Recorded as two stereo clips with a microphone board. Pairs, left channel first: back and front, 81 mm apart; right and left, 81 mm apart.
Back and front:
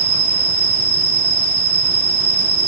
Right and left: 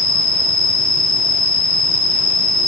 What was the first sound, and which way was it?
An insect, 105° right.